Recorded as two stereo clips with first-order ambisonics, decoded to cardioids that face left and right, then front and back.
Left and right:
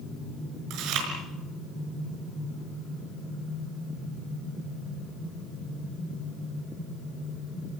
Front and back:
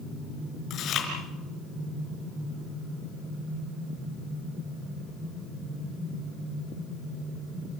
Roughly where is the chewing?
Ahead right.